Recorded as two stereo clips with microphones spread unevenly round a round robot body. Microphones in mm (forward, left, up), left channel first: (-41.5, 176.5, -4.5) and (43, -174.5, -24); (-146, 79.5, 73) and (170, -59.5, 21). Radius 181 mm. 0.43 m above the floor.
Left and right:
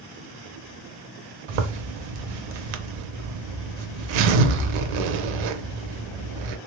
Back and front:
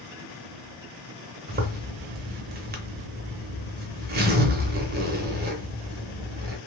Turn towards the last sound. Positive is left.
turn(degrees=-85)